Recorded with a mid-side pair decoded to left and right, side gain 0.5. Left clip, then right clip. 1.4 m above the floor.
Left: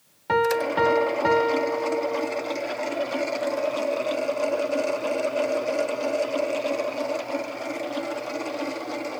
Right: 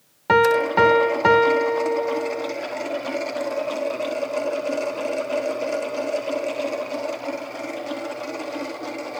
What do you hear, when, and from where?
0.3 s a piano: 45° right, 0.9 m